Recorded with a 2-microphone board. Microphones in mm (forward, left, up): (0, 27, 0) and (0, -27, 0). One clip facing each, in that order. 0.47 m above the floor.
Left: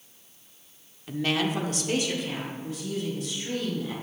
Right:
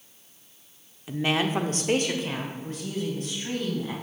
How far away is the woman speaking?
About 0.7 m.